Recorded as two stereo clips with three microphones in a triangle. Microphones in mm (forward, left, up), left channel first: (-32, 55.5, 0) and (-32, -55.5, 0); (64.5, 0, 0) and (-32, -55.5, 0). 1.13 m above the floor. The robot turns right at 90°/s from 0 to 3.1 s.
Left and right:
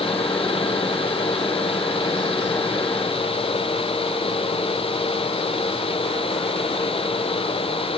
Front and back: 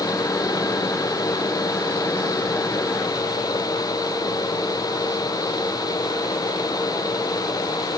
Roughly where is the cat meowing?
I don't hear a cat meowing.